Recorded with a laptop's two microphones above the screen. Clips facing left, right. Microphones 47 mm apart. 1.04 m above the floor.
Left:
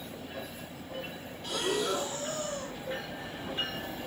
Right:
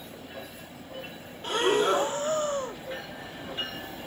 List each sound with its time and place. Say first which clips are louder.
1.4 s breathing: right 7 dB; 40° right (ahead or behind), 0.9 m